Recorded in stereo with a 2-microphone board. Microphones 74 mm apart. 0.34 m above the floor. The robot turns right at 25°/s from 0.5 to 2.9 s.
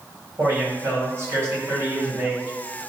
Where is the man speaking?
110° right, 1.8 m; by 2.5 s 60° right, 1.8 m.